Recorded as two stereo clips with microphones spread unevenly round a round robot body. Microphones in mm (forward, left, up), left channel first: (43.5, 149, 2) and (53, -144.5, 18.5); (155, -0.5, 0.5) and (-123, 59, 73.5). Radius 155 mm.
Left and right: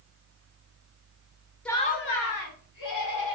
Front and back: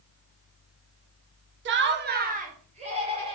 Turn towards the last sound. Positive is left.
turn(degrees=90)